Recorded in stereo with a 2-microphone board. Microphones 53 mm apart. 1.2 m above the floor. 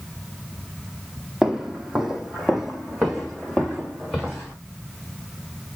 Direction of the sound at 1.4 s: 10° right (ahead or behind).